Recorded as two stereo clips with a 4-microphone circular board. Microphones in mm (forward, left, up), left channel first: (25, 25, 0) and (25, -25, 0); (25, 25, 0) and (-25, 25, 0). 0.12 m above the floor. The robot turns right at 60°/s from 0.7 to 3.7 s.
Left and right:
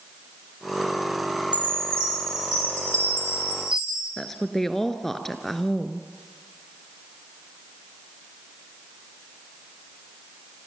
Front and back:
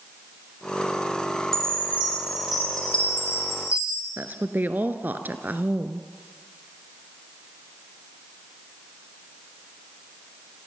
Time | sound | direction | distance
1.5 | a chime | 150° right | 2.5 m
4.2 | a woman speaking | 170° left | 1.4 m